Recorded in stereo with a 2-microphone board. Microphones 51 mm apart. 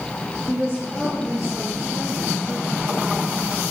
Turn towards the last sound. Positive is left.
turn(degrees=30)  # may be behind; listen again after turning